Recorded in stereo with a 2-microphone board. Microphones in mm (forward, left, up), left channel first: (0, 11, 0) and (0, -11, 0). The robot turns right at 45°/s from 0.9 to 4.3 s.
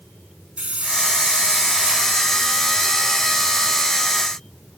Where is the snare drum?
I don't hear a snare drum.